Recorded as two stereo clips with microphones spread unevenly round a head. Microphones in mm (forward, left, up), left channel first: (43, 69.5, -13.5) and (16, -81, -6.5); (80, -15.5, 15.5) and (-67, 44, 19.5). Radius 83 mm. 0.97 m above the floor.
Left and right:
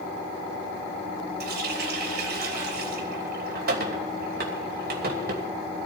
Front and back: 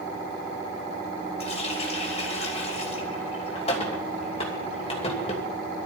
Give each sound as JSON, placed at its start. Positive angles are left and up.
{"t": 1.4, "sound": "a running tap", "azimuth_deg": -80, "distance_m": 2.5}